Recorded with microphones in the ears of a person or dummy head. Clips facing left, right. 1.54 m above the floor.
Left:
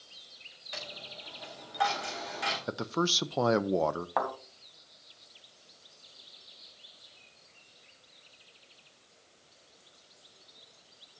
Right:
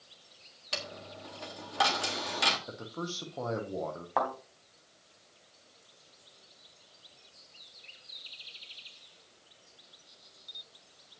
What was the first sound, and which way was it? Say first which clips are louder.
A dropped coin: right 4 dB; 50° right (ahead or behind).